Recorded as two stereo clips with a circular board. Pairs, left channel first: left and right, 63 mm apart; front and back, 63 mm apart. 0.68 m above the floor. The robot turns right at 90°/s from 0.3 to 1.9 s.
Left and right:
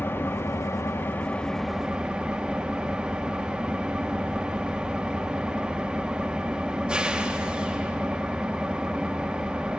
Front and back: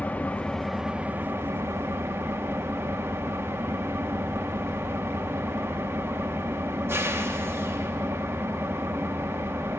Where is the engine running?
60° left, 0.8 m; by 9.8 s 160° right, 0.8 m.